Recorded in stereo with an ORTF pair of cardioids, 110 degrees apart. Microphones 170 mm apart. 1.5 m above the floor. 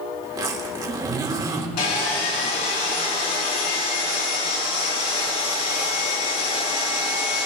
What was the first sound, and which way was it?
A zipper, 25° right.